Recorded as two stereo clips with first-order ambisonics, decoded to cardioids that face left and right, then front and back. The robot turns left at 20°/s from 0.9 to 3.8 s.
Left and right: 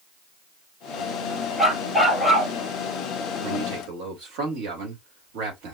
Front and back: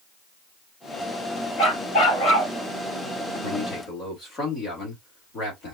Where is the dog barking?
5° left, 3.5 m; by 2.5 s 15° right, 3.5 m.